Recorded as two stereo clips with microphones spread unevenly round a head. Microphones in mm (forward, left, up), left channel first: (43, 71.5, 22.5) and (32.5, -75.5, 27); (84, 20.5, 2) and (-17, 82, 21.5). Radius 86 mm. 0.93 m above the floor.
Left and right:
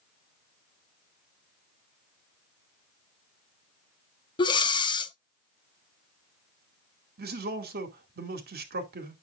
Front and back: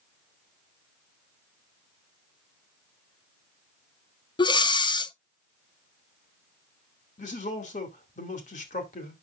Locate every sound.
4.4 s breathing: 25° left, 0.8 m
7.2 s a man speaking: 75° right, 2 m